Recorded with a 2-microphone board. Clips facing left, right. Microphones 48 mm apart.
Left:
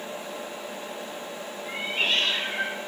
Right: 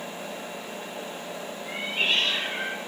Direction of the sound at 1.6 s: 5° right (ahead or behind).